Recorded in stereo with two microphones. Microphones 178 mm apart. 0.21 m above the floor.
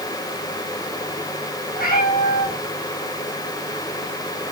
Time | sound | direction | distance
1.7 | a cat meowing | 55° left (ahead or behind) | 3 m